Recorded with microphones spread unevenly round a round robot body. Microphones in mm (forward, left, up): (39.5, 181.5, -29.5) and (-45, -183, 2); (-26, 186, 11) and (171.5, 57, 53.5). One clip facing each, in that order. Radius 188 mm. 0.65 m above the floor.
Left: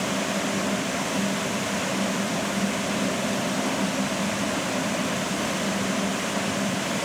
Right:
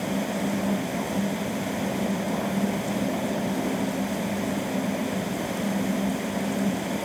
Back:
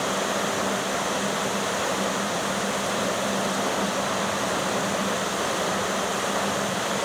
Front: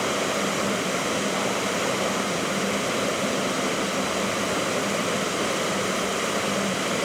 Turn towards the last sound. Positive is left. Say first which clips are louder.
# right 1 dB, front 1 dB
turn(degrees=25)